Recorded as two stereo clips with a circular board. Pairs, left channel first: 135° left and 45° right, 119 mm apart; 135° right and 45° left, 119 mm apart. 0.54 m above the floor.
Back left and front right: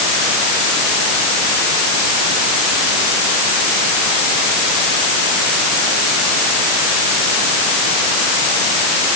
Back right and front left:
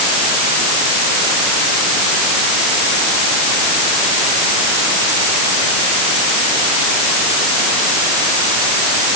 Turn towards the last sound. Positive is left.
No sound to turn to.